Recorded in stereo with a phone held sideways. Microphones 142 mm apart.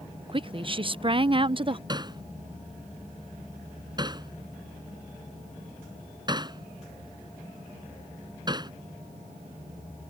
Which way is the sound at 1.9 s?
30° right (ahead or behind).